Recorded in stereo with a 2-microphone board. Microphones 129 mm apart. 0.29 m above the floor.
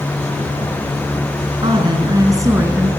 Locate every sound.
1.6 s a woman speaking: 40° right (ahead or behind), 4 m; by 2.9 s 15° right (ahead or behind), 4 m